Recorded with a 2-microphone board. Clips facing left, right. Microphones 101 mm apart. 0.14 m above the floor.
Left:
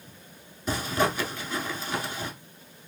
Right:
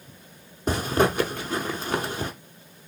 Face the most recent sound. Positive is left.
turn(degrees=-50)  # may be behind; listen again after turning